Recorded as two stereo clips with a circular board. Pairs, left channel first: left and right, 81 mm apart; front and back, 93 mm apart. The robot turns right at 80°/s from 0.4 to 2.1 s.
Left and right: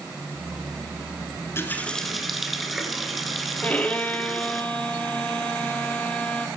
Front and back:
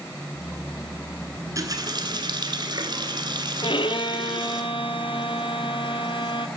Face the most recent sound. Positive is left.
turn(degrees=15)